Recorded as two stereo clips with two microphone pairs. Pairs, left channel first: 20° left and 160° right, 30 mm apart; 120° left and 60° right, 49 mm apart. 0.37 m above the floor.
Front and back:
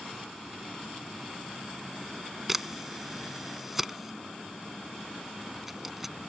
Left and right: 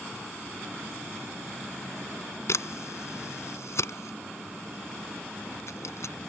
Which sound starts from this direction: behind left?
A camera shutter, at 2.5 s.